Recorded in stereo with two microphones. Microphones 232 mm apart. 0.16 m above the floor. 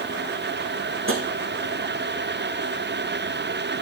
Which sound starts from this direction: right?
Tapping, at 1.1 s.